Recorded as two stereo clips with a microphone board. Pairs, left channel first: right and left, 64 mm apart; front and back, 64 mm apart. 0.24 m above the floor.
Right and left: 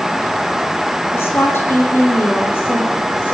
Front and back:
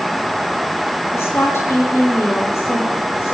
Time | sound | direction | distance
1.1 | a woman speaking | 45° right | 8 m